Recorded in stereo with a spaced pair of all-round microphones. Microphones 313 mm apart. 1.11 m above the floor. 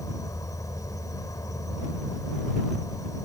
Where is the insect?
10° left (ahead or behind).